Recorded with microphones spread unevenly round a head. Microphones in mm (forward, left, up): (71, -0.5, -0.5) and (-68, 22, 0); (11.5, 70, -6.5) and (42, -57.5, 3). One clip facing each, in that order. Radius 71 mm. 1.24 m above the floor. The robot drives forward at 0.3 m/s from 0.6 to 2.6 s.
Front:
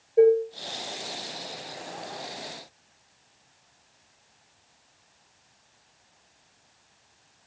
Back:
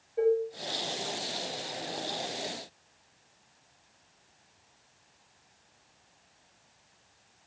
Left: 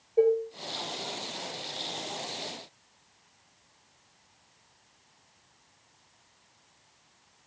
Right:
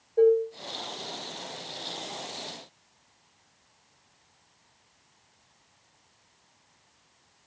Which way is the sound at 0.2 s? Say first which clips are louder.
Front 8 dB, right 3 dB; 25° left.